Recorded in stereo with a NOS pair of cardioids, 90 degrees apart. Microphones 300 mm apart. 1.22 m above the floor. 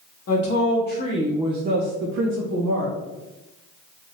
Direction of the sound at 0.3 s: 55° left.